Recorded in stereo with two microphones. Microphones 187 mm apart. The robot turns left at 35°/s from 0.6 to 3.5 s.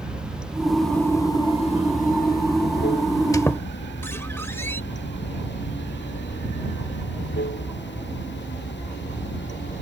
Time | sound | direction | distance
0.0 | running water | 175° right | ?
3.3 | a squeak | 20° left (ahead or behind) | ?